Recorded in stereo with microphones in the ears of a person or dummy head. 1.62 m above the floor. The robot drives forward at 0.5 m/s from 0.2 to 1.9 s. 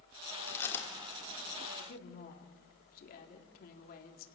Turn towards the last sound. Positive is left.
turn(degrees=55)  # may be behind; listen again after turning